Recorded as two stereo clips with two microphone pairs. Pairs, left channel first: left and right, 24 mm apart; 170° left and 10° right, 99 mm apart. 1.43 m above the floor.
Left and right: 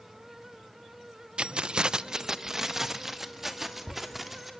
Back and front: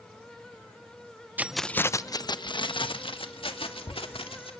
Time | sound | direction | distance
1.4 | keys jangling | 75° right | 0.5 m